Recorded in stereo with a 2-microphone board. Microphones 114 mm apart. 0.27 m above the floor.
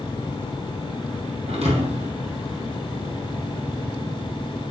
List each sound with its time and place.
1.5 s a thud: 65° right (ahead or behind), 3.5 m